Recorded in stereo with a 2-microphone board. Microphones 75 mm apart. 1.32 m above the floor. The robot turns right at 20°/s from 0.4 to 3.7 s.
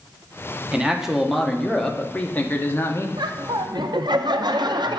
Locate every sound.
0.7 s a man speaking: 10° right, 0.9 m; by 3.1 s 35° left, 0.9 m
3.2 s laughter: 70° right (ahead or behind), 0.6 m; by 5.0 s 75° right (ahead or behind), 0.6 m